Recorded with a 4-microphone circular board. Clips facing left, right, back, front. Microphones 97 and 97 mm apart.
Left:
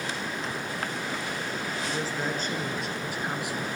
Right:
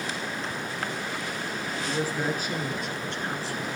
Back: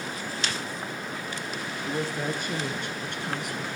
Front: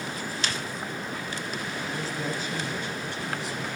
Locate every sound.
1.9 s a woman speaking: 160° right, 3 m; by 3.7 s 155° left, 2 m